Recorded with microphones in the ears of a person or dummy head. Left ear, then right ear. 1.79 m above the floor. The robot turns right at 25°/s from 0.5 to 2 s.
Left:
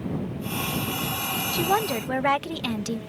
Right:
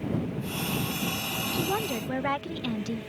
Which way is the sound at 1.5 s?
35° left (ahead or behind).